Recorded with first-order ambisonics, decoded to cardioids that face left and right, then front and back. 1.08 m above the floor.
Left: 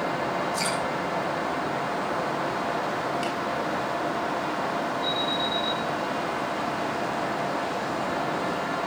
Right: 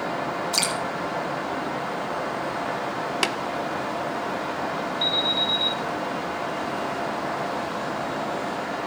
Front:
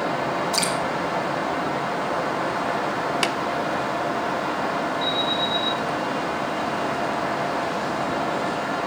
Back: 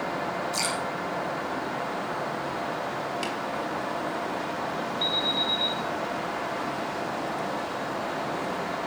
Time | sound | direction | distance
0.5 | dripping | 65° right | 6 m
3.2 | tapping | 50° right | 0.8 m
5.0 | an alarm | 110° right | 9 m